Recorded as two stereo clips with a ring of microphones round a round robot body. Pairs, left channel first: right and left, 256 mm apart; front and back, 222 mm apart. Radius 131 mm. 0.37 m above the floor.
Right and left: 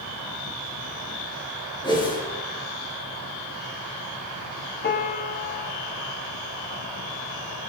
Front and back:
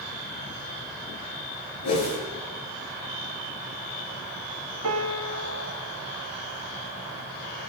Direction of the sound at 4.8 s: 145° right.